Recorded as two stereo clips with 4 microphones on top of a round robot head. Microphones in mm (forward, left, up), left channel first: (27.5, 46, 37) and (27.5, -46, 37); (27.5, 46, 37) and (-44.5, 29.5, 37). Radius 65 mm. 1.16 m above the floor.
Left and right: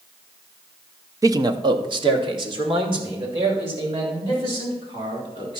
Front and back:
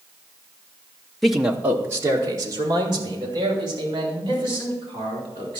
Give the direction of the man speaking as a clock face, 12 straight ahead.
2 o'clock.